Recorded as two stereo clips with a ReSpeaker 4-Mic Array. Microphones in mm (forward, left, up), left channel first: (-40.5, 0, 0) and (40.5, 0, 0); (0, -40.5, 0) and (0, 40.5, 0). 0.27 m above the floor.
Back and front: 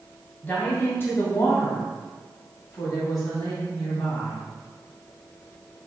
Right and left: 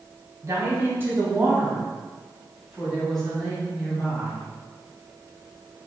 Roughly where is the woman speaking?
Behind left.